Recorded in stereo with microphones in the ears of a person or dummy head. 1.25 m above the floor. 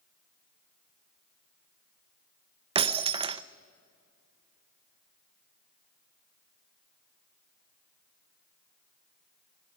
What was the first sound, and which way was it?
Breaking glass, 25° right (ahead or behind).